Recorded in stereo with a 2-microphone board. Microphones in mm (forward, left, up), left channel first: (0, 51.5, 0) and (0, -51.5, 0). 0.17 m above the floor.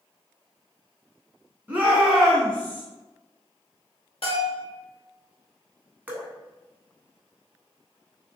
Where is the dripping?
15° right (ahead or behind), 0.5 m.